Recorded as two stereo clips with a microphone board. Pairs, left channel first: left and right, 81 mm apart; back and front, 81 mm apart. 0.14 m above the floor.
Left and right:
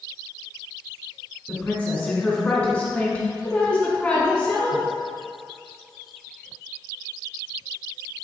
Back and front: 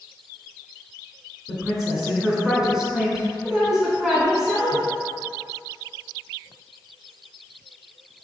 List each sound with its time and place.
1.5 s a woman speaking: 65° left, 1.0 m